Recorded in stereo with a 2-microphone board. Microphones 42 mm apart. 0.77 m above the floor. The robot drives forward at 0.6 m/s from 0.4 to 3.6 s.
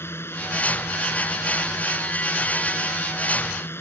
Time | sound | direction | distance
0.0 | a drone | 75° left (ahead or behind) | ?